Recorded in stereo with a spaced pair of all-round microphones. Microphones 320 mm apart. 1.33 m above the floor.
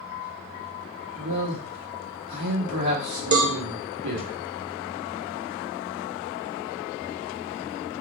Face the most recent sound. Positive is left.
turn(degrees=-60)  # may be behind; listen again after turning